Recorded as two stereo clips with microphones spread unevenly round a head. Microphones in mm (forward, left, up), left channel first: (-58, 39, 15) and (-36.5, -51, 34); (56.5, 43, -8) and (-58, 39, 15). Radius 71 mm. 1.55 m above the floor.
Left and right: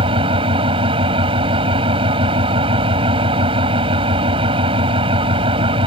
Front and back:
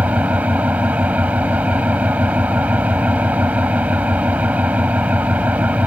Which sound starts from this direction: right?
An engine running, at 0.0 s.